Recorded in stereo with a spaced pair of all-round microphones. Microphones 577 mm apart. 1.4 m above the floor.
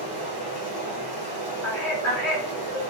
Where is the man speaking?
55° left (ahead or behind), 1.2 m.